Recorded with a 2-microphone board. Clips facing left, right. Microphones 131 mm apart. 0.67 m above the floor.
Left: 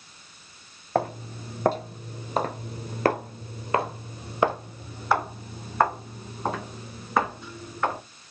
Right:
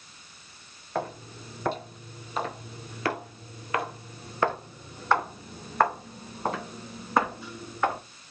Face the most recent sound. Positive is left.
turn(degrees=-5)  # may be behind; listen again after turning